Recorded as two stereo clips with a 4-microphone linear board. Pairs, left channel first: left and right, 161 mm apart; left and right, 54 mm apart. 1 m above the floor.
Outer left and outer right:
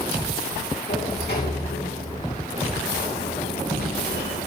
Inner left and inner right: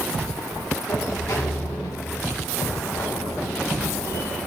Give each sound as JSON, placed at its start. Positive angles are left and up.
{"t": 0.9, "sound": "a sliding door", "side_deg": 75, "distance_m": 2.5}